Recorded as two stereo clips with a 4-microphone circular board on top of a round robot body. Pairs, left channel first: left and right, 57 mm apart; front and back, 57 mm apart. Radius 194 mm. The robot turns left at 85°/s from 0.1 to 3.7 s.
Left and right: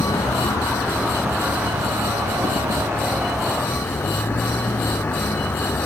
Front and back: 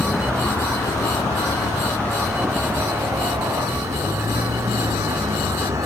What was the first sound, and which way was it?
A vehicle, 100° left.